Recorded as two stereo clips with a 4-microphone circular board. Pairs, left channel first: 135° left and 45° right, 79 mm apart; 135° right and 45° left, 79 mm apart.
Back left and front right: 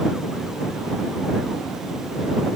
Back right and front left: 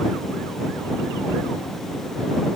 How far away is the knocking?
I don't hear knocking.